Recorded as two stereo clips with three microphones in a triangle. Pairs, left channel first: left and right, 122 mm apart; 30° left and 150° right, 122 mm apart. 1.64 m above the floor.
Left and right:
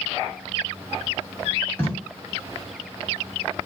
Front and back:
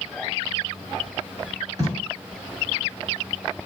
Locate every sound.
1.8 s tape being pulled: 160° left, 1.6 m